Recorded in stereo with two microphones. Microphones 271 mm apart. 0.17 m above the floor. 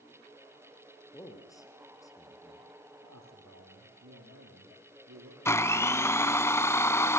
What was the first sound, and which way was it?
A man speaking, 10° left (ahead or behind).